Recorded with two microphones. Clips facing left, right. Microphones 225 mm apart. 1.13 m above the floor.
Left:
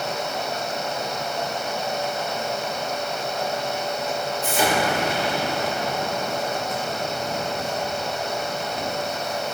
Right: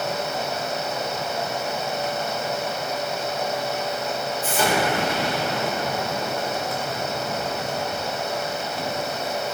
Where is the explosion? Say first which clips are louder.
Even; 10° left (ahead or behind), 2.5 m.